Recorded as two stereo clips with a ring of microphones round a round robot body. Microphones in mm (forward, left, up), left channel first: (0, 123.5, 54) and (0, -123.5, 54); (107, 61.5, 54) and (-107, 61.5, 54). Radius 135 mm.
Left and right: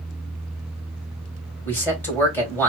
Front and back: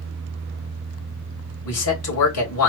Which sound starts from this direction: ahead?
A man speaking, at 1.6 s.